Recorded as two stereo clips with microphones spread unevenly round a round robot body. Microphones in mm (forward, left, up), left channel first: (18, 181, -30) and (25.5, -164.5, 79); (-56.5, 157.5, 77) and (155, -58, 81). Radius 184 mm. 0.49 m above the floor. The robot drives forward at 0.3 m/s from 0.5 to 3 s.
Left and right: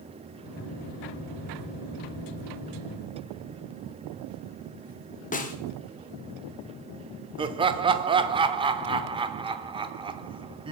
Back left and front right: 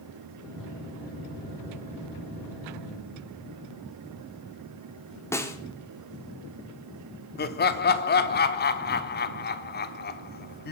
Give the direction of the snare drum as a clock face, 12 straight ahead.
10 o'clock.